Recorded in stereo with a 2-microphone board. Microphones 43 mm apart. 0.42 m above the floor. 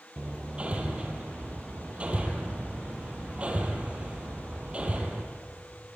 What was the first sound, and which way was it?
Hammering, 30° right (ahead or behind).